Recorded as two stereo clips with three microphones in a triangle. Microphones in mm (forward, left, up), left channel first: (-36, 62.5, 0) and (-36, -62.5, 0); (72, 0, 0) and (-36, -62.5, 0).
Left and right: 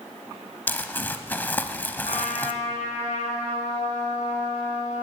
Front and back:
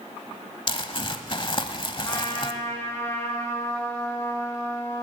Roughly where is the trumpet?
Left.